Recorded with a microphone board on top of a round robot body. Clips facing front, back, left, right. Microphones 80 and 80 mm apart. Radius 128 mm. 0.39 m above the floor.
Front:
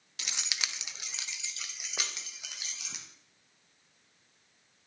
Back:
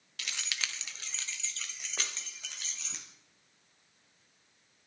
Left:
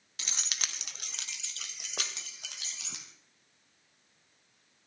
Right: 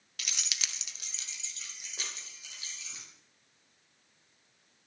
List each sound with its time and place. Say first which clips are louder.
0.2 s keys jangling: even, left 1 dB; 55° left, 0.8 m; by 3.0 s 80° left, 3 m